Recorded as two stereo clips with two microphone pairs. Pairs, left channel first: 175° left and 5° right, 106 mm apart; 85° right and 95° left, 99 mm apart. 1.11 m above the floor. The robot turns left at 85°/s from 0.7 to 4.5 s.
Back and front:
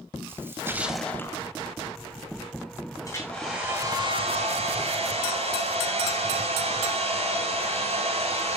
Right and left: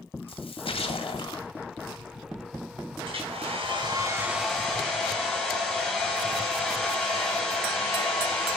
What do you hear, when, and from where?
0.3 s a splash: 70° right, 2.5 m; by 1.5 s 140° right, 2.5 m
3.0 s a hair dryer: 120° left, 8.5 m; by 8.6 s 5° right, 8.5 m